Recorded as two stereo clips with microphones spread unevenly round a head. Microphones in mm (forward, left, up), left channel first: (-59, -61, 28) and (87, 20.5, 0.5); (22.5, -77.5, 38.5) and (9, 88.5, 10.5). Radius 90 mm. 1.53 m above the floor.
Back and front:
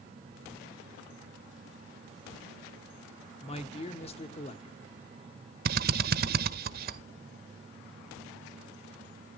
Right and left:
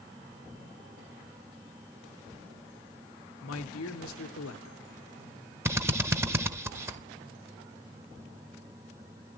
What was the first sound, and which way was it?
A man speaking, 95° right.